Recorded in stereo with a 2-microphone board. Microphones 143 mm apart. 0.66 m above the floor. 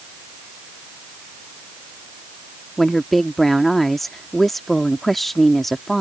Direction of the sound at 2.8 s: Centre (ahead or behind).